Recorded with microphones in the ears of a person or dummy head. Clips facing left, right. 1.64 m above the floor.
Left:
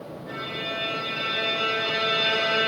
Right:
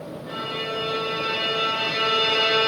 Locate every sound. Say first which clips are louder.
0.3 s a violin: right 3 dB; 75° right (ahead or behind), 1.4 m